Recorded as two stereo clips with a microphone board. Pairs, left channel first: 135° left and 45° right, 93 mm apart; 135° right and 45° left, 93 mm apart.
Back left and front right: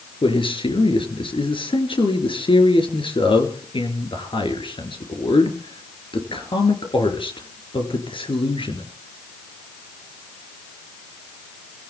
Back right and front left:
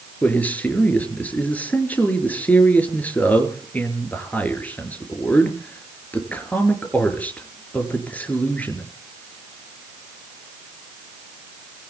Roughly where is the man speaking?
Behind left.